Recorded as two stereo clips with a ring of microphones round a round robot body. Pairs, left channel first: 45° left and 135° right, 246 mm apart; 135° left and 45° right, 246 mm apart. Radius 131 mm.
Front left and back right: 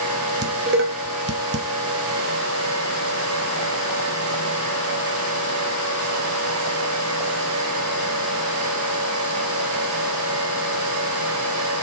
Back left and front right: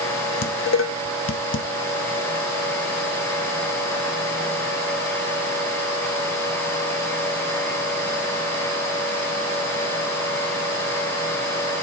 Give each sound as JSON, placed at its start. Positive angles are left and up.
{"t": 0.4, "sound": "dishes clattering", "azimuth_deg": 175, "distance_m": 0.9}